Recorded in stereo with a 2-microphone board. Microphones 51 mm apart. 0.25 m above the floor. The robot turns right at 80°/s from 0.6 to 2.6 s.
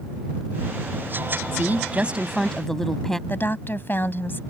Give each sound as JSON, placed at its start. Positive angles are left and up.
{"t": 1.5, "sound": "a woman speaking", "azimuth_deg": -75}
{"t": 3.3, "sound": "a woman speaking", "side_deg": 45}